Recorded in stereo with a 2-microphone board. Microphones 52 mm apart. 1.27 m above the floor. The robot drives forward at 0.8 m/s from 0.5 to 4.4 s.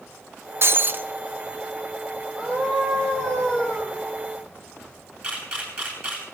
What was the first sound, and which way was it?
Breaking glass, 50° right (ahead or behind).